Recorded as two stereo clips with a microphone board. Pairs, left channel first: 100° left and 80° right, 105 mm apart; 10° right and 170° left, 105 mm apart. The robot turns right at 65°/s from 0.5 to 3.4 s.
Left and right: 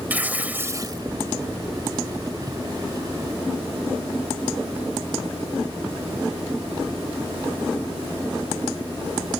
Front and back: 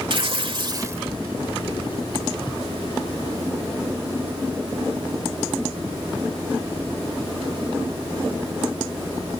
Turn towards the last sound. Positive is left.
turn(degrees=35)